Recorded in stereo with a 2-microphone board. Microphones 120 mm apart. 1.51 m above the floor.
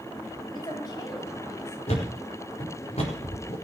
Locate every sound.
0.5 s a woman speaking: 40° left (ahead or behind), 9.5 m; by 1.8 s 45° left (ahead or behind), 8 m
1.9 s a thud: 65° left (ahead or behind), 4.5 m